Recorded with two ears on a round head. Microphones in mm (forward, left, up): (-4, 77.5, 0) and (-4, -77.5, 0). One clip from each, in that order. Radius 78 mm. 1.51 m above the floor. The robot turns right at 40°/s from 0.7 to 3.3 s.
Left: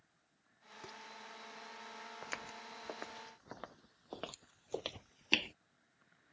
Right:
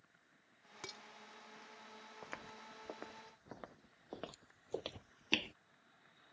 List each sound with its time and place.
0.8 s dishes clattering: 60° right (ahead or behind); by 1.0 s 50° right (ahead or behind)
2.2 s footsteps: 70° left (ahead or behind); by 5.5 s 15° left (ahead or behind)